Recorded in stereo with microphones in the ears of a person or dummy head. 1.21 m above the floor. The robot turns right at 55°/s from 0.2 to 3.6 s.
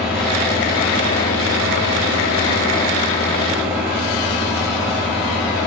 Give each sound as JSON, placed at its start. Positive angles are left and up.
{"t": 0.0, "sound": "an engine running", "azimuth_deg": 0, "distance_m": 4.0}